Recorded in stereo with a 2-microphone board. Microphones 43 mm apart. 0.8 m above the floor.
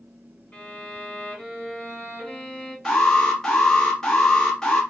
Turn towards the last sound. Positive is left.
turn(degrees=15)  # may be behind; listen again after turning